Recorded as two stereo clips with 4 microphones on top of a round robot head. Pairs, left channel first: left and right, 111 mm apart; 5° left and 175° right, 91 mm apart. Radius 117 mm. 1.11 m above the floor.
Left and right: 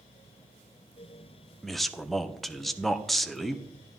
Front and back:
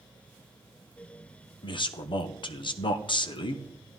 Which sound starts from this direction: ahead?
A man speaking, at 1.6 s.